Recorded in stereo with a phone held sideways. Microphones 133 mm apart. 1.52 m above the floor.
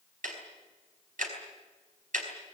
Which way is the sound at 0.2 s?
80° right.